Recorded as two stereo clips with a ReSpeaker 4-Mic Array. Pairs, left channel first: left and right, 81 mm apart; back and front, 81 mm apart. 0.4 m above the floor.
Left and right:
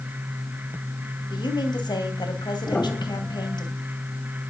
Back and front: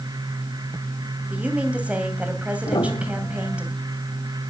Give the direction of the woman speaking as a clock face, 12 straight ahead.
10 o'clock.